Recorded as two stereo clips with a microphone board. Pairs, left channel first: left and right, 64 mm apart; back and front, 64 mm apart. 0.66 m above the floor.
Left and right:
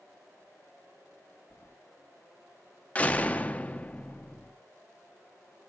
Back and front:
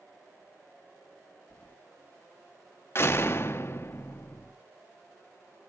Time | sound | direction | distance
1.5 | keys jangling | 125° left | 0.5 m
3.0 | a door slam | 150° left | 0.5 m